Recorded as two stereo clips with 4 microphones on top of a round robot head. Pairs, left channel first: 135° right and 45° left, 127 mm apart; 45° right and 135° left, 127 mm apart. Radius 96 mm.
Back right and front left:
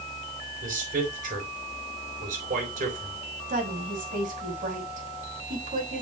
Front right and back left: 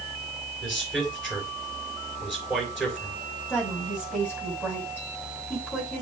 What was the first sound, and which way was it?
A man speaking, 40° left.